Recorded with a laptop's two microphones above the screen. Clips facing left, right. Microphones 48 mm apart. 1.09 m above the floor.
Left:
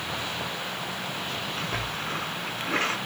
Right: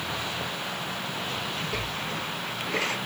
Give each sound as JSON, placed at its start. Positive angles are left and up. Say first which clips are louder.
{"t": 1.6, "sound": "a splash", "louder": "even", "side_deg": 60, "distance_m": 2.5}